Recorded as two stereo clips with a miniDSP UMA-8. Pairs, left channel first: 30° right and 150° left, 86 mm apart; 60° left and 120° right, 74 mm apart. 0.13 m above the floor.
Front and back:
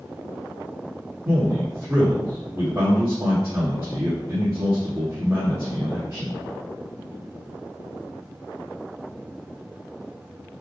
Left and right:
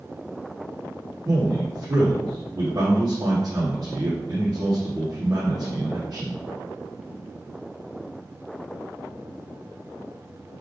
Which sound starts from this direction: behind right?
A man speaking, at 1.2 s.